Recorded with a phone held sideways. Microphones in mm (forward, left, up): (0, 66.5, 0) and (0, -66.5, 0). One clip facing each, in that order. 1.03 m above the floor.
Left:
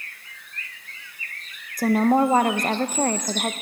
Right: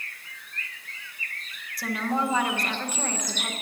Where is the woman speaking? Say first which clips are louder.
Left 9 dB; 45° left (ahead or behind), 0.9 m.